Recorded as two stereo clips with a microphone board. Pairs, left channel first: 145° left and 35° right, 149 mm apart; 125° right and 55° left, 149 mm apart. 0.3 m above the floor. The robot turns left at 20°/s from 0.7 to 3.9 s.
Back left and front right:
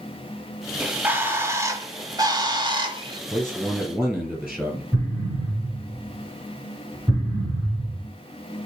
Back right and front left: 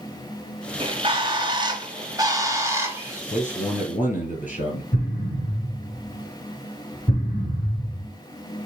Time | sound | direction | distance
0.8 | a bird | 40° left | 1.0 m
3.3 | a man speaking | 100° right | 2.5 m
4.9 | an explosion | 90° right | 3 m